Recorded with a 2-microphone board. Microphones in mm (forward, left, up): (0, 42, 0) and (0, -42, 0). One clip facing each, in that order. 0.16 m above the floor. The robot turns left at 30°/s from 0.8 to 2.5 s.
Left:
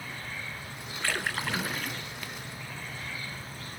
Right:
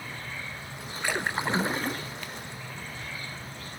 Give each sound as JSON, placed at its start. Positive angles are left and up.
{"t": 1.0, "sound": "a splash", "azimuth_deg": -20, "distance_m": 0.7}